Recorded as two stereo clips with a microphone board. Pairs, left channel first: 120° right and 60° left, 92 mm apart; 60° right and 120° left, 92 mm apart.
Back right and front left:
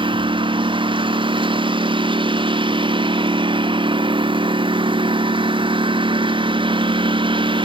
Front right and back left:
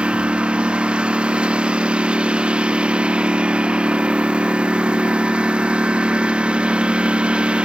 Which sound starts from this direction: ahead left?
A lawn mower, at 0.0 s.